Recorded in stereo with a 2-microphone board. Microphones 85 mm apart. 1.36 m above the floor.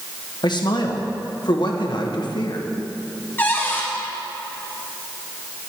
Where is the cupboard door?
25° left (ahead or behind), 1.7 m.